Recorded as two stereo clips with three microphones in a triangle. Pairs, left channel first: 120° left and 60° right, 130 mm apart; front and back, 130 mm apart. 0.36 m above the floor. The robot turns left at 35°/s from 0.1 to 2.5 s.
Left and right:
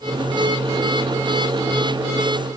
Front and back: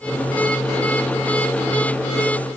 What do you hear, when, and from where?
Only background noise.